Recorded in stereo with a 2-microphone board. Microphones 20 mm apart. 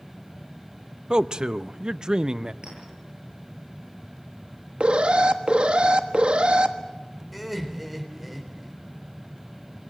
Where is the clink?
55° right (ahead or behind), 9.5 m.